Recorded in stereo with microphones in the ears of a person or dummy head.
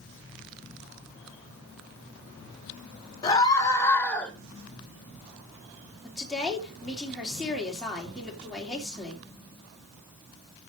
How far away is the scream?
About 2.5 m.